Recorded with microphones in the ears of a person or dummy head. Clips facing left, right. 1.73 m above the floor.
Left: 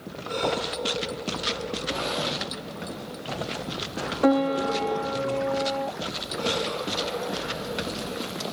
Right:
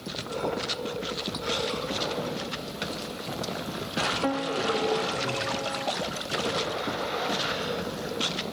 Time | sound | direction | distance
4.2 | a piano | 50° left (ahead or behind) | 0.6 m